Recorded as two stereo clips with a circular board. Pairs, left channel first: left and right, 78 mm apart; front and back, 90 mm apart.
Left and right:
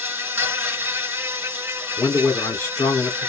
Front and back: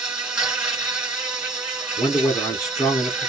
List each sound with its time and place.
0.0 s an insect: 115° right, 1.6 m
2.0 s a man speaking: 45° left, 1.6 m